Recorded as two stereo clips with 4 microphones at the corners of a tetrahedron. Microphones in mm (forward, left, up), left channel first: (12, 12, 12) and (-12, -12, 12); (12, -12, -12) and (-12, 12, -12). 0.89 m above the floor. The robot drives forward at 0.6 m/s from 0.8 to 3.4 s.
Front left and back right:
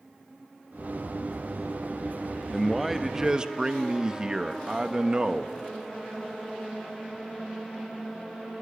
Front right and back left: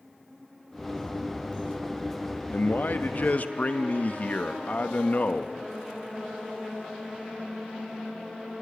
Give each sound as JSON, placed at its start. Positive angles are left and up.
{"t": 2.5, "sound": "a man speaking", "azimuth_deg": -45, "distance_m": 1.1}